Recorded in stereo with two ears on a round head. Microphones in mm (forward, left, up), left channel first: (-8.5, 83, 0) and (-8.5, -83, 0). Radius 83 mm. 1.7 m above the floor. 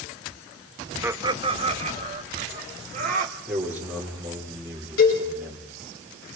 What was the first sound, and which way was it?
Laughter, 10° right (ahead or behind).